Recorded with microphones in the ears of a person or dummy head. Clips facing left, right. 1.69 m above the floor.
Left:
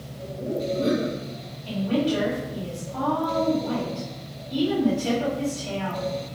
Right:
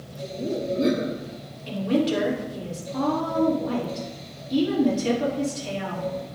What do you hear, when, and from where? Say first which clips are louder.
0.2 s laughter: even; 30° right (ahead or behind), 1.5 m
1.7 s a woman speaking: right 1 dB; 30° right (ahead or behind), 3 m